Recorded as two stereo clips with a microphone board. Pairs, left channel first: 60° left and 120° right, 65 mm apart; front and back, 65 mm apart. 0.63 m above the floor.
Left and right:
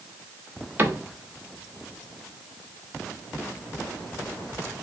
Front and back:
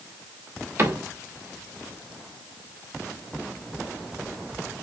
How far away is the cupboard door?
About 1.0 m.